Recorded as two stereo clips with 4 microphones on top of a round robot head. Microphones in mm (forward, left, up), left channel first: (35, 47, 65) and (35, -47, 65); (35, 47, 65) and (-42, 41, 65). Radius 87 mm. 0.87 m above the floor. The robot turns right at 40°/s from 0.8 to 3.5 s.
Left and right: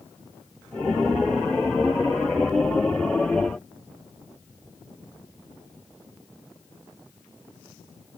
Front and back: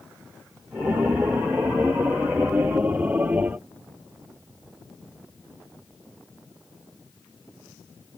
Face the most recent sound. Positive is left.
No sound to turn to.